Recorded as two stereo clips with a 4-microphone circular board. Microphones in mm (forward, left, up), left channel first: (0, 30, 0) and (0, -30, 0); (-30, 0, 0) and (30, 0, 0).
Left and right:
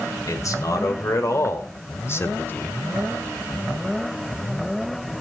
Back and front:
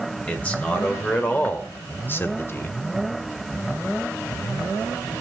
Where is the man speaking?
115° left, 3 m; by 2.8 s 150° left, 1.2 m.